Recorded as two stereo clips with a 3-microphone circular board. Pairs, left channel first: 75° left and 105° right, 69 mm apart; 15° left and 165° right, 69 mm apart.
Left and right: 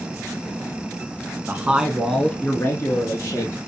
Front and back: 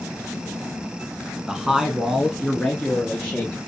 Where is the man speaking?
95° right, 1.1 m; by 3.6 s 90° left, 2.0 m.